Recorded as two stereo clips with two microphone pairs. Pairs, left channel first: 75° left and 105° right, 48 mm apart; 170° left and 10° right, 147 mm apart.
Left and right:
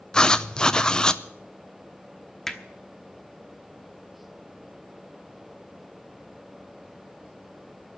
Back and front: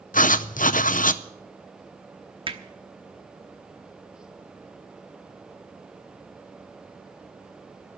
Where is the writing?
150° left, 0.5 m.